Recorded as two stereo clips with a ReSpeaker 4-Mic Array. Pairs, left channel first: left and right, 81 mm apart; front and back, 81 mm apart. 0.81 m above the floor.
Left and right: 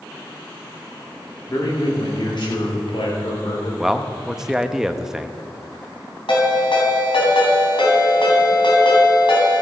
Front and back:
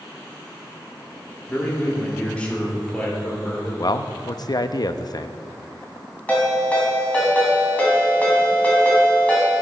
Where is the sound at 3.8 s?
10° right, 0.5 m.